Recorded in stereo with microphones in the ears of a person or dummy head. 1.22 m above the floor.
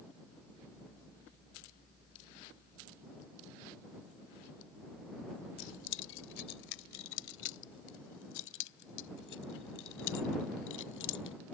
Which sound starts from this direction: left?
Keys jangling, at 5.6 s.